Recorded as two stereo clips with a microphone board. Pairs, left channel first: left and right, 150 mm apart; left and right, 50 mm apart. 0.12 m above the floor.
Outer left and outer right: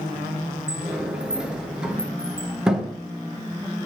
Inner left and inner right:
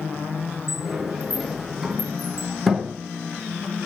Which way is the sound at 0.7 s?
5° right (ahead or behind).